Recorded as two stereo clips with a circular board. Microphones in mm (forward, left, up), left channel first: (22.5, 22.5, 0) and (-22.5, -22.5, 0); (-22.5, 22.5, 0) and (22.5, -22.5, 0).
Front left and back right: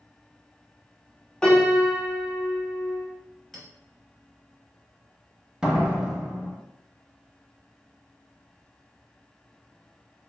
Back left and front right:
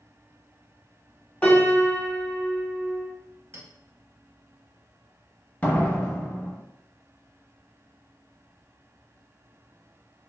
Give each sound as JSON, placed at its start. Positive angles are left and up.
{"t": 1.4, "sound": "a piano", "azimuth_deg": 105, "distance_m": 1.1}
{"t": 3.5, "sound": "a clink", "azimuth_deg": -40, "distance_m": 1.0}
{"t": 5.6, "sound": "a door slam", "azimuth_deg": 165, "distance_m": 0.6}